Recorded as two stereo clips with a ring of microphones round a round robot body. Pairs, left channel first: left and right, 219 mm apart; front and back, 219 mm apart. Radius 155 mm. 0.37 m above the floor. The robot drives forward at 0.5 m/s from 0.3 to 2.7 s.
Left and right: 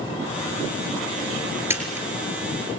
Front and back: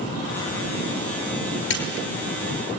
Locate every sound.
1.7 s a camera shutter: 10° right, 6.5 m